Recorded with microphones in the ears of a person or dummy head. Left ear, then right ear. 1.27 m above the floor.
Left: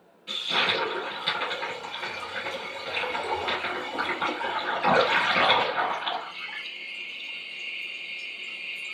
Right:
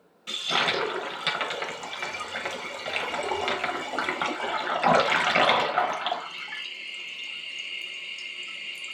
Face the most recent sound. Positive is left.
turn(degrees=-55)  # may be behind; listen again after turning